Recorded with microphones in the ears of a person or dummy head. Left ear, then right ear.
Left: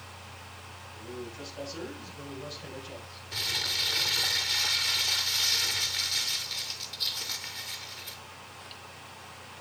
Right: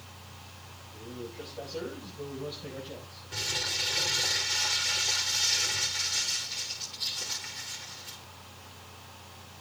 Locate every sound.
0.9 s a man speaking: 85° left, 7.5 m; by 3.2 s 75° left (ahead or behind), 7 m
3.3 s crumpling: 25° left (ahead or behind), 2.5 m